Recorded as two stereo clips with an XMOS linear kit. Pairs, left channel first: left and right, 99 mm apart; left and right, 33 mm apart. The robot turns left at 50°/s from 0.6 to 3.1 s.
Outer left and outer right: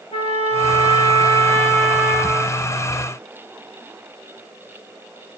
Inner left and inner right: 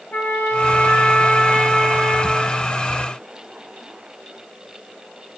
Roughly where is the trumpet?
Left.